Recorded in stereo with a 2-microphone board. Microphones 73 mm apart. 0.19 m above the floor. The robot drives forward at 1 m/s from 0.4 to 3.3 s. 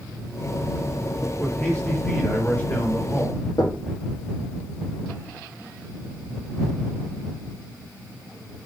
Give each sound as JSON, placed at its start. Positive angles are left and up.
{"t": 1.4, "sound": "a man speaking", "side_deg": 20, "distance_m": 4.5}
{"t": 3.6, "sound": "knocking", "side_deg": 70, "distance_m": 3.0}